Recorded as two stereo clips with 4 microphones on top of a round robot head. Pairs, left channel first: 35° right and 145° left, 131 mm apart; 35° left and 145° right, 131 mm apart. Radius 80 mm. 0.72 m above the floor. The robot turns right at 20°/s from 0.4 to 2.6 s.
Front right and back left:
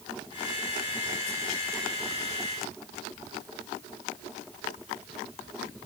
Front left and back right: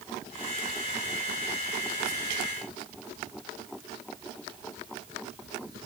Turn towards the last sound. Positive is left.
No sound to turn to.